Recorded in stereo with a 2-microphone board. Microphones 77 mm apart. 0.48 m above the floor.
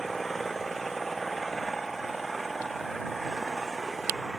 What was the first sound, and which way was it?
An engine running, centre (ahead or behind).